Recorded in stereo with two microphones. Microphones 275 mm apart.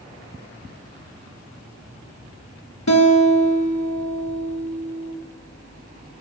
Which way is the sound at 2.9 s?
75° left (ahead or behind).